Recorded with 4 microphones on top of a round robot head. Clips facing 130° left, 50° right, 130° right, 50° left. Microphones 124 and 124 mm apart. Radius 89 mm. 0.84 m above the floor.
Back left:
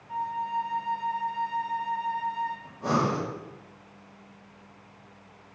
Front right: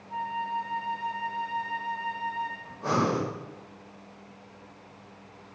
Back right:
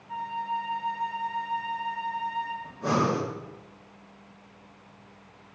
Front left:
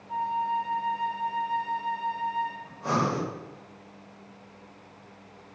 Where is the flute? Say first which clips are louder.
Back left 1 dB, front left 4 dB; 145° left, 1.3 m.